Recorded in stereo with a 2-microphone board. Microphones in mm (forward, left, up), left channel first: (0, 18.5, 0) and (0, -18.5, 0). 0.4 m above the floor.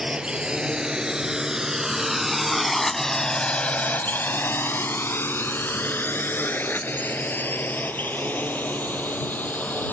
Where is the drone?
20° right (ahead or behind); by 9.9 s 45° left (ahead or behind).